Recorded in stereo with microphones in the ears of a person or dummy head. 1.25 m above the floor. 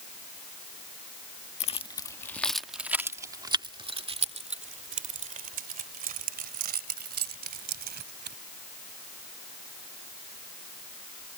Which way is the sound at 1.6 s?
35° left (ahead or behind).